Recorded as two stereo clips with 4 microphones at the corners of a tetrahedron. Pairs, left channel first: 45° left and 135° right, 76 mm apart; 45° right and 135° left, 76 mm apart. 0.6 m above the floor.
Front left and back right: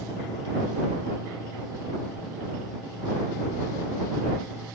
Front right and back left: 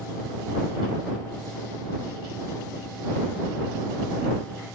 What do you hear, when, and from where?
Only background noise.